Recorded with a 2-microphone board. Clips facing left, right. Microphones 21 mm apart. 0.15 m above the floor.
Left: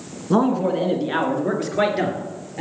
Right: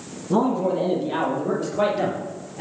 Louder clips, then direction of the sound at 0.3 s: Left 2 dB; 40° left (ahead or behind).